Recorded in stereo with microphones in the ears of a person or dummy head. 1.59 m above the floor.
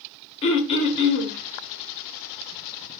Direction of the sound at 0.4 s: 35° left (ahead or behind).